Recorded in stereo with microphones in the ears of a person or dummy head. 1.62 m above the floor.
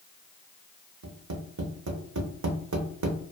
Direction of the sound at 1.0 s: 80° right.